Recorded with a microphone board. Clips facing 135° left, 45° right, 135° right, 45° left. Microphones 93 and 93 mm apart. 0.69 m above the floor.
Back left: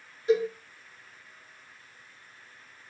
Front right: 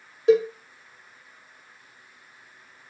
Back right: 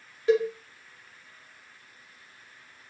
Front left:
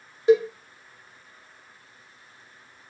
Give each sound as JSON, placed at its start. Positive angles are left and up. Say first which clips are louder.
{"t": 0.3, "sound": "a cowbell", "louder": "front right 6 dB, front left 4 dB", "azimuth_deg": -25, "distance_m": 0.7}